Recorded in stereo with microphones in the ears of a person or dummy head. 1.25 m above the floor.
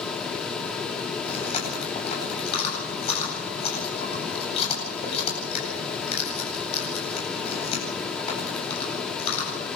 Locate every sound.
1.2 s chewing: 35° left (ahead or behind), 8.5 m